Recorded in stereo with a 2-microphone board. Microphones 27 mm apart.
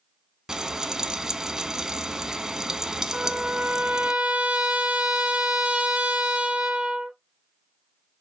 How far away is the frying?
About 0.5 m.